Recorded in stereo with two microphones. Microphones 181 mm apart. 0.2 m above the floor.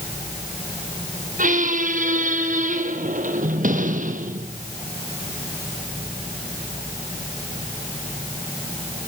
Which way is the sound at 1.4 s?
45° right (ahead or behind).